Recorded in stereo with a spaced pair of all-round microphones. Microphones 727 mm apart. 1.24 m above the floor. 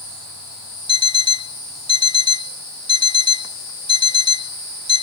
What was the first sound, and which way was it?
An alarm clock, 5° left (ahead or behind).